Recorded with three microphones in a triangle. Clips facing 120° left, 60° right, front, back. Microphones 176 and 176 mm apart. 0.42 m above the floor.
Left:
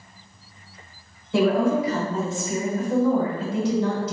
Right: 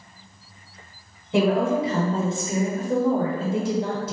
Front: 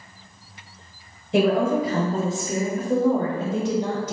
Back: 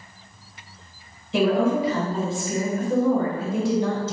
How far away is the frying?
I don't hear frying.